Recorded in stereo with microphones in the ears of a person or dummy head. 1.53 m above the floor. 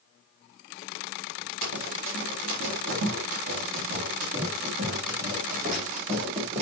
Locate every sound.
1.6 s running footsteps: 65° right (ahead or behind), 3.5 m; by 6.6 s 35° right (ahead or behind), 4.5 m